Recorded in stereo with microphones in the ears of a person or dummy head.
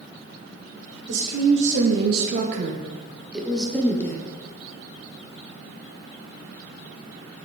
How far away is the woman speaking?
About 1.3 m.